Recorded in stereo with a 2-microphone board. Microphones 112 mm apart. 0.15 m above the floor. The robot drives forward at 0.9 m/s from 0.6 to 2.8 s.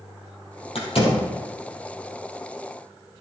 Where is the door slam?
60° left (ahead or behind), 3.5 m; by 1.3 s 65° left (ahead or behind), 3.5 m.